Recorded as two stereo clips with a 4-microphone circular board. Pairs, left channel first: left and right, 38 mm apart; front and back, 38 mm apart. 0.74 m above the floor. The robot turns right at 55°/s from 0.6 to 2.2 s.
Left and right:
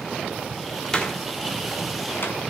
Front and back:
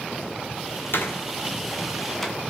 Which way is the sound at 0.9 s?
15° left.